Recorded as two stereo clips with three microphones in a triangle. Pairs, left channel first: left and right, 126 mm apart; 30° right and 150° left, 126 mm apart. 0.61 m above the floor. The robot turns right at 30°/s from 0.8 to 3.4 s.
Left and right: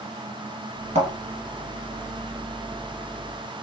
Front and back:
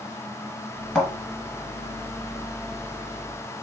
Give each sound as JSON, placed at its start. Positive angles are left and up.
{"t": 0.9, "sound": "a thud", "azimuth_deg": -115, "distance_m": 1.5}